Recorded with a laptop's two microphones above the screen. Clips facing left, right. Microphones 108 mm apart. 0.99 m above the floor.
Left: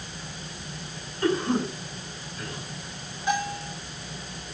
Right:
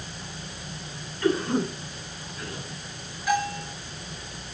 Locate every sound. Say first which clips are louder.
1.2 s a cough: even; 30° left (ahead or behind), 10 m
3.3 s a bell: right 2 dB; 25° left (ahead or behind), 9.5 m